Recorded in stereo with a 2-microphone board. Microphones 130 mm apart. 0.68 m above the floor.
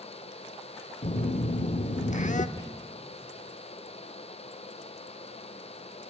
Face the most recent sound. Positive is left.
turn(degrees=30)  # may be behind; listen again after turning